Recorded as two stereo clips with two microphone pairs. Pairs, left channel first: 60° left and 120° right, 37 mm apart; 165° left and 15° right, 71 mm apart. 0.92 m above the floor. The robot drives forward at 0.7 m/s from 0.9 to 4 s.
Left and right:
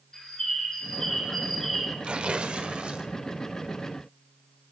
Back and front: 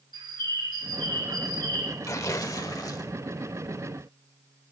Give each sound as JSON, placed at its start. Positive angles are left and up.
{"t": 0.1, "sound": "a bird", "azimuth_deg": -20, "distance_m": 2.0}
{"t": 2.0, "sound": "tearing paper", "azimuth_deg": -170, "distance_m": 0.8}